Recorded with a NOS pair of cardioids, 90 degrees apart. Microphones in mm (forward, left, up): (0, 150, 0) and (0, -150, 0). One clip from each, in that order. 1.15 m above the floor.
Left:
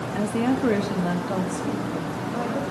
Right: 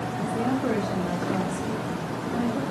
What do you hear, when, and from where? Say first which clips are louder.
0.1 s a woman speaking: left 3 dB; 60° left, 1.1 m; by 2.6 s 35° left, 2 m